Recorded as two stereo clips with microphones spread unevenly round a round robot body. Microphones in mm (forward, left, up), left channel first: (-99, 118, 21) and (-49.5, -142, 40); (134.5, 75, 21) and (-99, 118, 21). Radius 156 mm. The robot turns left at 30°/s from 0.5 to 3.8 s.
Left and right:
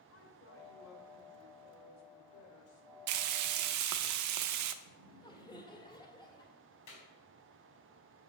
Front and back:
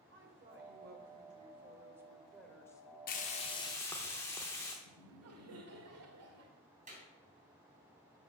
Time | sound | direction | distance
0.1 | a woman speaking | 135° left | 2.5 m
3.1 | frying | 70° right | 0.7 m
4.8 | laughter | 175° left | 1.8 m
6.9 | a clap | 110° left | 4 m